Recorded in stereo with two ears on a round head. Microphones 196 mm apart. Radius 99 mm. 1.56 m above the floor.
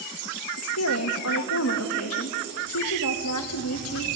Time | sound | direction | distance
0.6 | a woman speaking | 75° left (ahead or behind) | 1.8 m